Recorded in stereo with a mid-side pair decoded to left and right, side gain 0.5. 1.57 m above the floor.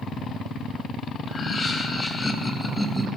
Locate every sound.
1.3 s laughter: 45° left, 1.6 m; by 3.1 s straight ahead, 0.9 m